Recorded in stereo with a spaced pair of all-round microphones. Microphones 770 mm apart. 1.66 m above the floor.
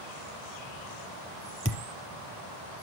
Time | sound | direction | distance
1.6 | a thud | 20° left (ahead or behind) | 2.5 m